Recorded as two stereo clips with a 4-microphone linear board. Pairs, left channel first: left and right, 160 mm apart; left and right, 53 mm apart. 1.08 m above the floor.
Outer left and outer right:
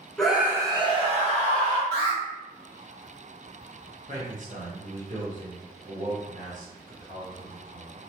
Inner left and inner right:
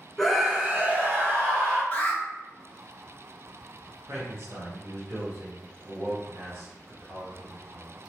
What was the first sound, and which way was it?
A scream, 5° left (ahead or behind).